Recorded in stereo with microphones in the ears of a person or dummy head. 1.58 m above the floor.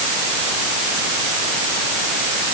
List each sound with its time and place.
Only background noise.